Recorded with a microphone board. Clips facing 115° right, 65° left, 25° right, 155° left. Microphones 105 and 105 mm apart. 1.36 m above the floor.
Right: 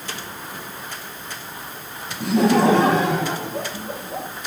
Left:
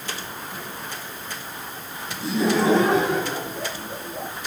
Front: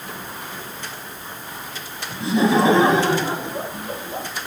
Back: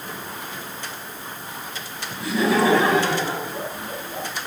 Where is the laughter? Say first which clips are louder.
Right 5 dB, front 3 dB; 90° right, 8 m.